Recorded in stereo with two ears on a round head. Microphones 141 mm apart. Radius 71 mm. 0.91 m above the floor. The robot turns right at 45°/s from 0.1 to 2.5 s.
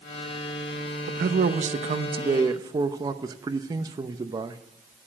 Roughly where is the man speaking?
Right.